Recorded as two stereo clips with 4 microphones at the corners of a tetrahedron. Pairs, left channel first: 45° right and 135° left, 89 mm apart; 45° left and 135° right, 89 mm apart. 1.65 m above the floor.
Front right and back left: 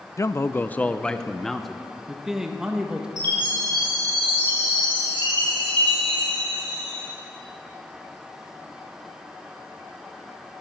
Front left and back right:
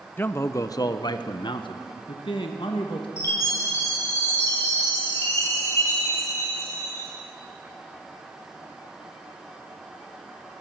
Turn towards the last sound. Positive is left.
turn(degrees=100)